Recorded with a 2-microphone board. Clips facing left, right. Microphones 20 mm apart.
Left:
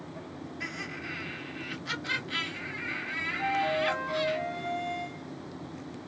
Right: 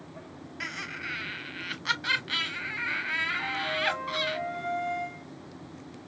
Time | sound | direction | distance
0.6 | laughter | 65° right (ahead or behind) | 1.3 m
3.4 | a flute | 25° left (ahead or behind) | 1.0 m